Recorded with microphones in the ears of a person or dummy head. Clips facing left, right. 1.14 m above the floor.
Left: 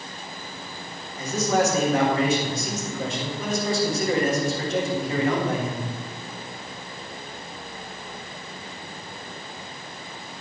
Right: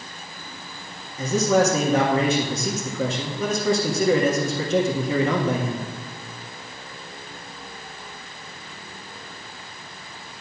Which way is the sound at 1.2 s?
65° right (ahead or behind).